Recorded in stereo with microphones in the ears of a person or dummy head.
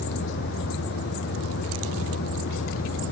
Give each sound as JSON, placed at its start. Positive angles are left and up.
{"t": 0.0, "sound": "a vehicle", "side_deg": 60}